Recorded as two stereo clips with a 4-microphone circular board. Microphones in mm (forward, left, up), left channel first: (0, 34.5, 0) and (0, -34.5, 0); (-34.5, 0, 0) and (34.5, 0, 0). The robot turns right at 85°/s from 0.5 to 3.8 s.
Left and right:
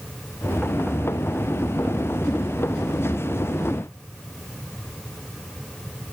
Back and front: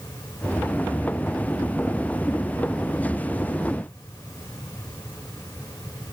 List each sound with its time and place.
Only background noise.